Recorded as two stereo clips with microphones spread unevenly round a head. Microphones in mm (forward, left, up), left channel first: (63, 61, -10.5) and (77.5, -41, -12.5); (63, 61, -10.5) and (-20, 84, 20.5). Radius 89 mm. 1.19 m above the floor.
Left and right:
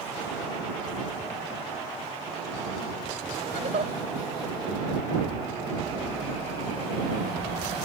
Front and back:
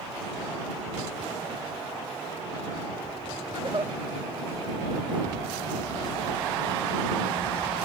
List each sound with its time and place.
3.5 s a giggle: 130° right